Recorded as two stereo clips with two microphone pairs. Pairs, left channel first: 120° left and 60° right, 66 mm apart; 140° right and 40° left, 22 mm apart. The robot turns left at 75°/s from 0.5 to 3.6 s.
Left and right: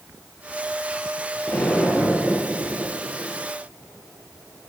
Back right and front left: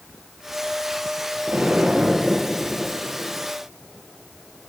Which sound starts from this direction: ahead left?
An explosion, at 1.5 s.